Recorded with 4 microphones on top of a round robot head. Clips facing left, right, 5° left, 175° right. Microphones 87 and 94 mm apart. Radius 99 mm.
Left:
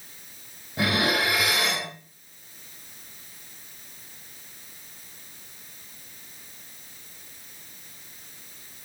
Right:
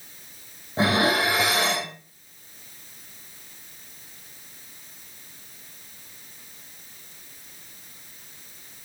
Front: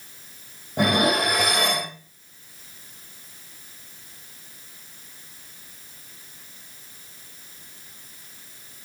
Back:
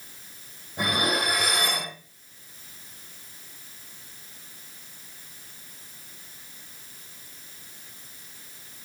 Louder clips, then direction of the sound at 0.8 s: Right 3 dB, front 6 dB; 30° right.